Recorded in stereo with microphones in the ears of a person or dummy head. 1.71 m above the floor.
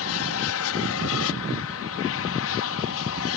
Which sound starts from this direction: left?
An aircraft, at 0.0 s.